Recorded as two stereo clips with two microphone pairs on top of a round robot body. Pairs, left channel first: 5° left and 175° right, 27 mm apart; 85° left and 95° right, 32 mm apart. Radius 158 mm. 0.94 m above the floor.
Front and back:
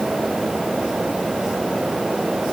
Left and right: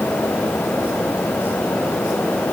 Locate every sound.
Only background noise.